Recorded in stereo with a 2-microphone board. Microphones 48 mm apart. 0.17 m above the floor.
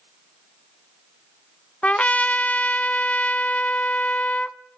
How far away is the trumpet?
About 0.5 m.